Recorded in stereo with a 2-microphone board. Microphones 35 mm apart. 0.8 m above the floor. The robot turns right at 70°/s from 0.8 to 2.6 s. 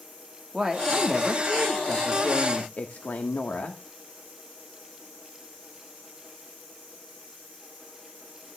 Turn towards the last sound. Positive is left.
turn(degrees=110)